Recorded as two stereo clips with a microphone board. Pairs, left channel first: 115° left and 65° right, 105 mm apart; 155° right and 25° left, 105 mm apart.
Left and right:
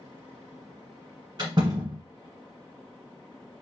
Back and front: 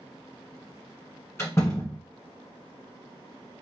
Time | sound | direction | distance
1.4 | a door slam | 100° right | 1.8 m